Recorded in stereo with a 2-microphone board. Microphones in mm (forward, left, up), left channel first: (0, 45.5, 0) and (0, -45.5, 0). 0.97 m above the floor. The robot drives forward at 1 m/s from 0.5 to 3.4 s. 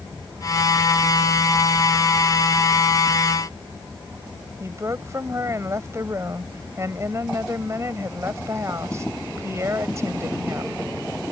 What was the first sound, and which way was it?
A woman speaking, 35° right (ahead or behind).